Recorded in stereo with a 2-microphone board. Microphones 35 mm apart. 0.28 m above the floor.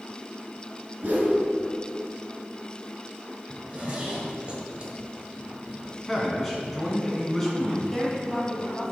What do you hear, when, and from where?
1.0 s a whoosh: 45° right (ahead or behind), 1.8 m
3.5 s a zipper: 25° right (ahead or behind), 1.7 m
6.0 s a man speaking: 10° left (ahead or behind), 2 m
7.9 s a woman speaking: 10° left (ahead or behind), 1.8 m